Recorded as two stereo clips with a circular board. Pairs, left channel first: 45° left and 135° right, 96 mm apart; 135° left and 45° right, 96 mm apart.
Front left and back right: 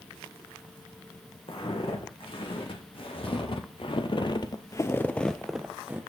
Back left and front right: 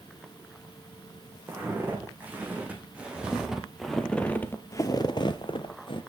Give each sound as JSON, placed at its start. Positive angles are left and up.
{"t": 1.5, "sound": "footsteps", "azimuth_deg": 20, "distance_m": 3.0}